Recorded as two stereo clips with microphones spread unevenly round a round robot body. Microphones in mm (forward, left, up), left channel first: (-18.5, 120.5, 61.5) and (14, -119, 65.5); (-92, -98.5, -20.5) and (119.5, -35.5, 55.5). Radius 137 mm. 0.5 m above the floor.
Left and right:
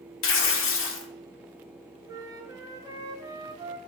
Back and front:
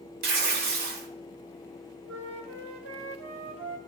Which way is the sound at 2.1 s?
10° right.